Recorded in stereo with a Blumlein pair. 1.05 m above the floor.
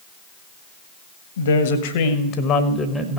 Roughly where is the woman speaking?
Ahead left.